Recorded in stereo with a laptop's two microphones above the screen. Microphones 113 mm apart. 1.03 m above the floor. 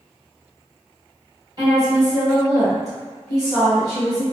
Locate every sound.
1.6 s a woman speaking: 35° right (ahead or behind), 1.4 m